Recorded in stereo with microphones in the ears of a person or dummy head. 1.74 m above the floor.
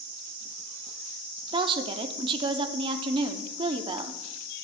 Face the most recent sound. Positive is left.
turn(degrees=-25)  # may be behind; listen again after turning